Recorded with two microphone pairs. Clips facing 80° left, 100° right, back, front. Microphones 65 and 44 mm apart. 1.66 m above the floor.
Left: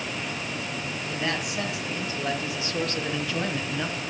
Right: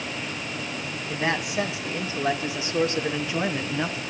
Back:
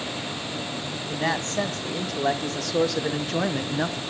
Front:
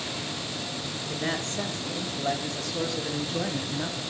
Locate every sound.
1.1 s a man speaking: 165° right, 3 m; by 4.0 s 175° right, 1.1 m